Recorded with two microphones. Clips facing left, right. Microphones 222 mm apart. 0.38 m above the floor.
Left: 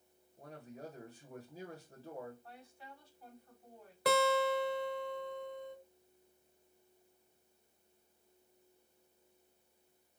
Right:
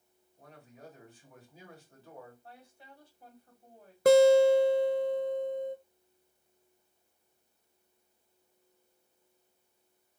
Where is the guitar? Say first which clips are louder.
Right 12 dB; 45° right (ahead or behind), 0.6 m.